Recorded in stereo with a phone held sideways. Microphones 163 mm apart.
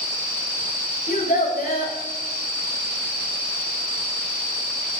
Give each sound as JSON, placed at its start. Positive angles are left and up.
{"t": 1.1, "sound": "a child speaking", "side_deg": 60, "distance_m": 2.5}